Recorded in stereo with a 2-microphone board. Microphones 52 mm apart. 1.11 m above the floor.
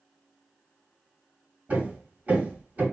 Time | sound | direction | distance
1.7 | hammering | 30° right (ahead or behind) | 2.5 m